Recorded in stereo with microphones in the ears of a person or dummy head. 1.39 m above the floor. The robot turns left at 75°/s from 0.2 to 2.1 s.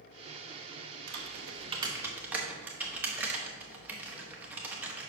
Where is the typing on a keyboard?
65° right (ahead or behind), 1.1 m; by 5.1 s 5° right (ahead or behind), 1.1 m.